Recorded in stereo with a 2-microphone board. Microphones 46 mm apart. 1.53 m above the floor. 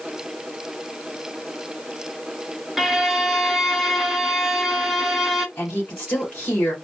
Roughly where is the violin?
Centre.